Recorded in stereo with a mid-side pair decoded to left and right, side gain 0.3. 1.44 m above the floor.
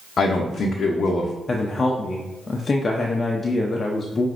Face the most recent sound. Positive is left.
turn(degrees=50)